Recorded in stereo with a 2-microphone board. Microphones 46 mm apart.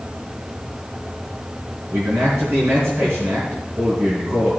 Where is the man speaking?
65° right (ahead or behind), 3.5 m.